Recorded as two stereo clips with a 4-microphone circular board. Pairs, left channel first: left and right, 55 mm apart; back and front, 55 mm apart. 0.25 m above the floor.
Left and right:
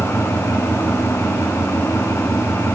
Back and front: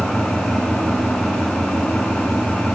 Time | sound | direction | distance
0.0 | an engine running | 105° left | 3 m